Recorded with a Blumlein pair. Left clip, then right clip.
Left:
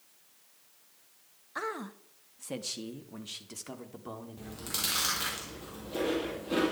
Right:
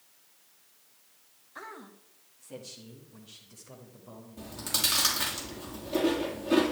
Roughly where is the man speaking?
Ahead left.